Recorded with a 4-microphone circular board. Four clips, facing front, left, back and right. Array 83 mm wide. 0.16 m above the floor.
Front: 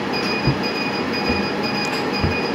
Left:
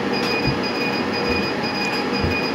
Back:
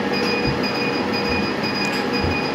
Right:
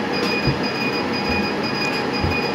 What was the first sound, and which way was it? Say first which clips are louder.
Footsteps: even, even; 20° right.